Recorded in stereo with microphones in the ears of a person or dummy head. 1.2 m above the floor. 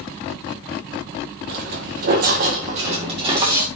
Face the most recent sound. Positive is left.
turn(degrees=-20)  # may be behind; listen again after turning